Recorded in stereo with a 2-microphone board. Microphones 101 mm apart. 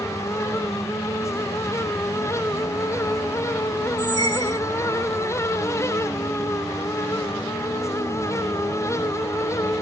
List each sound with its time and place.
4.0 s a squeak: 45° right (ahead or behind), 0.9 m